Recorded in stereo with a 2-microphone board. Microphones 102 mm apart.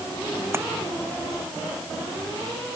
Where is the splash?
25° right (ahead or behind).